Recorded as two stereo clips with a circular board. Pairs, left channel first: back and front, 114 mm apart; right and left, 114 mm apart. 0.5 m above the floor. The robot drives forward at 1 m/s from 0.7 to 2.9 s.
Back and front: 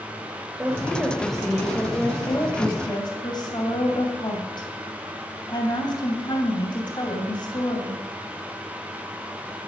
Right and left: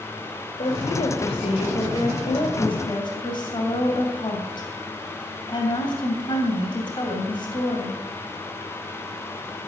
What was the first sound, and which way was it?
A woman speaking, 75° right.